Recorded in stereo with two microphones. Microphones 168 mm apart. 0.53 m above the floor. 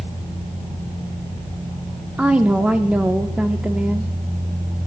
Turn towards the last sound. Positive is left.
turn(degrees=-10)  # may be behind; listen again after turning